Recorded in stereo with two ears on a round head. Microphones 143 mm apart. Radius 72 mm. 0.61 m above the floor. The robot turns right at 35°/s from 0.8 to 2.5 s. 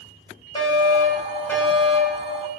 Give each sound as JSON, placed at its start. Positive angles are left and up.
{"t": 0.6, "sound": "a fire alarm", "azimuth_deg": 140, "distance_m": 4.0}